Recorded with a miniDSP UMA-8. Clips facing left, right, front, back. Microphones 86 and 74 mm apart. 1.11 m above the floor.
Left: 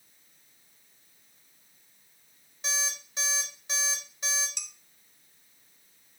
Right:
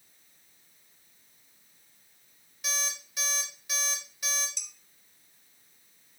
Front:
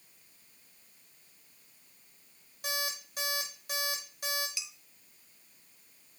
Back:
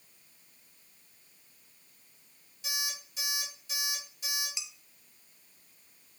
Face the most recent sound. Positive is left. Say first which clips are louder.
# left 3 dB, front 1 dB
turn(degrees=115)